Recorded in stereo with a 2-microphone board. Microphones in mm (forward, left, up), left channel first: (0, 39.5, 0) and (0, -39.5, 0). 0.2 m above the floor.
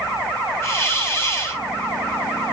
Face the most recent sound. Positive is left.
turn(degrees=30)  # may be behind; listen again after turning